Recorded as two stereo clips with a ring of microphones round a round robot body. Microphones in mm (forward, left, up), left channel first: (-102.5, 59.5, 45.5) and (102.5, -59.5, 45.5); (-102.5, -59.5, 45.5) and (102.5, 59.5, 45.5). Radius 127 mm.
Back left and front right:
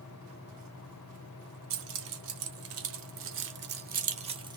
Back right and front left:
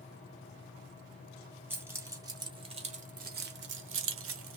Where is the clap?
I don't hear a clap.